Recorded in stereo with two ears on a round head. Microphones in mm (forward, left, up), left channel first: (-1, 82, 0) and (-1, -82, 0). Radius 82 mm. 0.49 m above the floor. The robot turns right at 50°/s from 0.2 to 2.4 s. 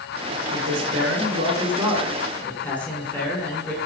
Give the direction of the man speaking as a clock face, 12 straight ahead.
3 o'clock.